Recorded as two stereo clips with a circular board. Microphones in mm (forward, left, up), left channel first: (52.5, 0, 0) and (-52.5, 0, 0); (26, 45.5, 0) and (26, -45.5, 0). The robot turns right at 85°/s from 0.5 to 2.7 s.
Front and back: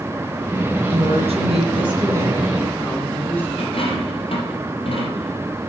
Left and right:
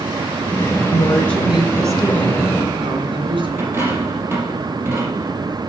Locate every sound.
0.9 s a woman speaking: 130° left, 3 m; by 3.5 s 75° right, 3 m
3.6 s a dropped coin: 25° right, 4 m